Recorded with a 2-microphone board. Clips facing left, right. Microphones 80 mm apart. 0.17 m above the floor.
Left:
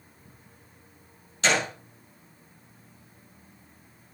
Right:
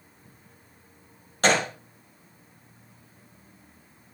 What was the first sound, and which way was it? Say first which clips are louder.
A gunshot: right 3 dB; 50° right (ahead or behind).